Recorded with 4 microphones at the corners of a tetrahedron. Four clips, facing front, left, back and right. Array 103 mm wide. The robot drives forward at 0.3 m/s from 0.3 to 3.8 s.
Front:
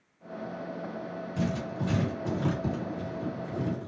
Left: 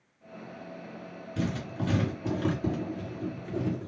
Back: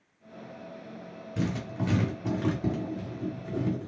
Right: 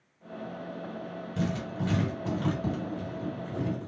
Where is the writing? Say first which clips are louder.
Even, back 1 dB; straight behind, 2.5 m.